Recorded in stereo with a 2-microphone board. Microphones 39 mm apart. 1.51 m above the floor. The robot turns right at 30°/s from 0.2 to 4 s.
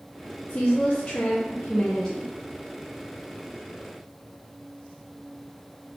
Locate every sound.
0.5 s a woman speaking: 125° left, 0.7 m; by 2.3 s straight behind, 0.7 m